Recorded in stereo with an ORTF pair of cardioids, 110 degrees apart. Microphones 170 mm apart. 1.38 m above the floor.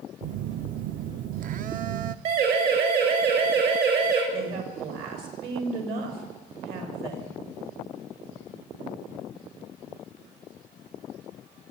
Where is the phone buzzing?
55° right, 0.7 m.